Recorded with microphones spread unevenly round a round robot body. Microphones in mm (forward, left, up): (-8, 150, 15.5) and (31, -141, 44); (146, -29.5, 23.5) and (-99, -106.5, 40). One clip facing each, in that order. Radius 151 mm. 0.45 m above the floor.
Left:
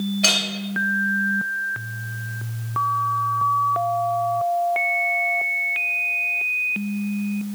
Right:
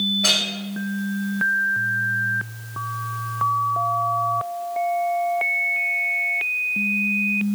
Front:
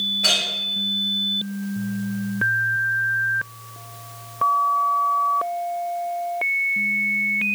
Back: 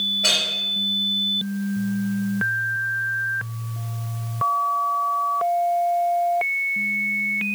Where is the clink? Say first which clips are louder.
Left 1 dB, even; 75° left, 1.5 m.